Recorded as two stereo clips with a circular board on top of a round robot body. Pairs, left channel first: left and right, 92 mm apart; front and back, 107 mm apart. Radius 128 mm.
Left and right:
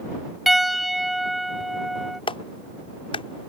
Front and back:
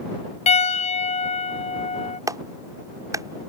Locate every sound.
0.5 s a piano: straight ahead
2.3 s a clap: 120° left